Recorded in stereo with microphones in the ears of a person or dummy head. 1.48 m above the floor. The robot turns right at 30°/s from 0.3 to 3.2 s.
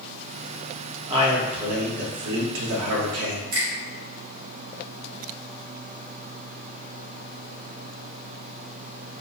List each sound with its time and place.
1.1 s a man speaking: 150° right, 0.6 m; by 3.4 s 90° right, 0.6 m
3.5 s a finger snap: 70° right (ahead or behind), 1.0 m